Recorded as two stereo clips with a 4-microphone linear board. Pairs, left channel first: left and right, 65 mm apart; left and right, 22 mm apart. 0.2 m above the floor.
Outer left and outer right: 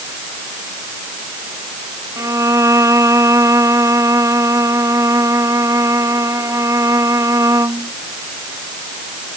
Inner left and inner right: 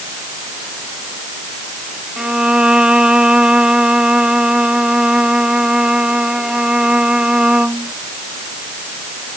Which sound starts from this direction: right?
A violin, at 2.2 s.